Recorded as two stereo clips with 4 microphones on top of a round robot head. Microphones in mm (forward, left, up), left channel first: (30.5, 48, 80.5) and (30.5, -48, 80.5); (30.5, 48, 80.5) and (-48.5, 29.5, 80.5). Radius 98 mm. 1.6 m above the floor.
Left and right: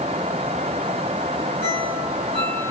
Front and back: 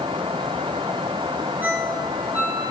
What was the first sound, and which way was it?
A ringtone, 125° left.